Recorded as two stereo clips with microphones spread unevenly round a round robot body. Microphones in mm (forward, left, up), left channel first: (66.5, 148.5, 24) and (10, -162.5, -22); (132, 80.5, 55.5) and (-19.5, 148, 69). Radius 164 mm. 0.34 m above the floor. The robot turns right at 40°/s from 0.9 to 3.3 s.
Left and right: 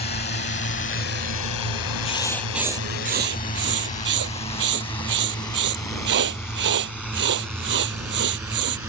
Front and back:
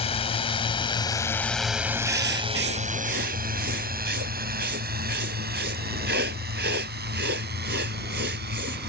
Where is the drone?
20° left; by 8.9 s 175° left.